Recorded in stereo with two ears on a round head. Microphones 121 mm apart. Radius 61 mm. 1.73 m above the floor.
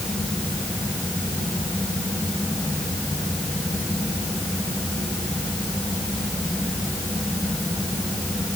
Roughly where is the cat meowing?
I don't hear a cat meowing.